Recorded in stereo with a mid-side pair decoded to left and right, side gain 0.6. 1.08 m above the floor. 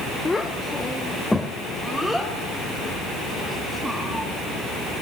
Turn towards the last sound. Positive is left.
turn(degrees=-10)